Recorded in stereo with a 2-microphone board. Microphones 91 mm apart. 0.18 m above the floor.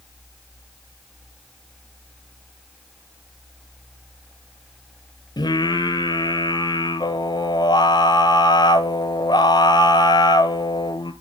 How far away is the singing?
About 0.6 m.